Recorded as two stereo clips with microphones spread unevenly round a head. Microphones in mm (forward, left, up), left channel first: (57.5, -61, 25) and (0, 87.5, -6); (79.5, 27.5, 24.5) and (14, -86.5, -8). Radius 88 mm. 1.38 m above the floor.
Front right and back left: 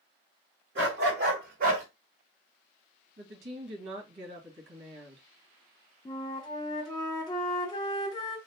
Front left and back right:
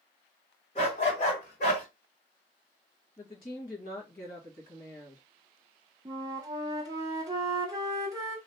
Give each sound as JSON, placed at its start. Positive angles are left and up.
{"t": 0.8, "sound": "a dog barking", "azimuth_deg": 95, "distance_m": 2.5}
{"t": 3.2, "sound": "a woman speaking", "azimuth_deg": 95, "distance_m": 1.5}
{"t": 6.0, "sound": "a flute", "azimuth_deg": -55, "distance_m": 1.1}